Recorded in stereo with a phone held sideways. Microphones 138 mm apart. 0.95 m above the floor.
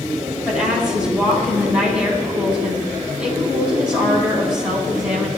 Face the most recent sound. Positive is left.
turn(degrees=-5)  # may be behind; listen again after turning